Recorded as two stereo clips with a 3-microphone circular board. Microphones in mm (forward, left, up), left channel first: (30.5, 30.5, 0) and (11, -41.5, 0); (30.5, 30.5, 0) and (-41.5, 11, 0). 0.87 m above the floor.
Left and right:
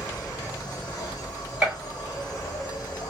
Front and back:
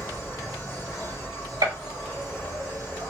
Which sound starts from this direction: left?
An insect, at 0.0 s.